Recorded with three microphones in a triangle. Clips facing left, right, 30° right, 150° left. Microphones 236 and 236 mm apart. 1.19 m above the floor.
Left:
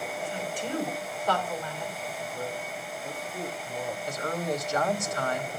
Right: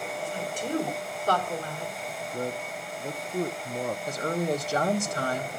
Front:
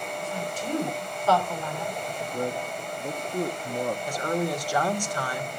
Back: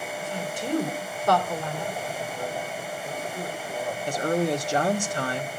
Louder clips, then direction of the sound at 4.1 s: Right 3 dB, back 3 dB; 145° right.